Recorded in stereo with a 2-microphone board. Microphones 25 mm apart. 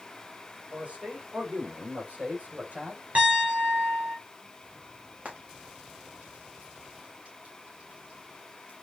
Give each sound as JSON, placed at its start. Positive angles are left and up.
{"t": 0.7, "sound": "a man speaking", "side_deg": -80, "distance_m": 7.5}
{"t": 3.1, "sound": "a piano", "side_deg": -75, "distance_m": 6.5}
{"t": 5.2, "sound": "frying", "side_deg": -80, "distance_m": 4.5}